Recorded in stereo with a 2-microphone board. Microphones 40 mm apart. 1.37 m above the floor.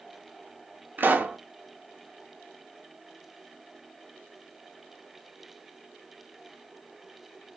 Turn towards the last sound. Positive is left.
turn(degrees=-60)  # may be behind; listen again after turning